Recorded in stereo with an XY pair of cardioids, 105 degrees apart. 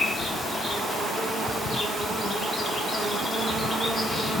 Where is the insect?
50° left, 0.9 m.